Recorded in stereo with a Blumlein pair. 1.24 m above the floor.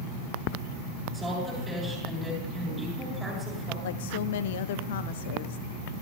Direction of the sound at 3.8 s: 55° left.